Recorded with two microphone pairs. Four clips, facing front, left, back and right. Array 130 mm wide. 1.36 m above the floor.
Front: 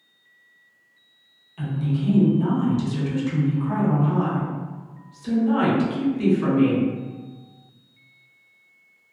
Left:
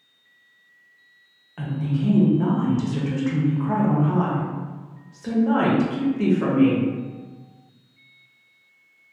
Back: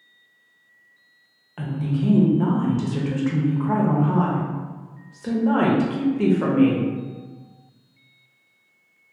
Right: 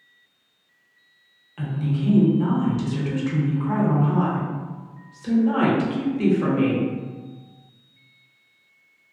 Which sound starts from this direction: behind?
A woman speaking, at 1.6 s.